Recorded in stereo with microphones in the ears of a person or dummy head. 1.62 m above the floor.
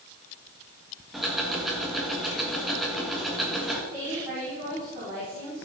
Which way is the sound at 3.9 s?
25° right (ahead or behind).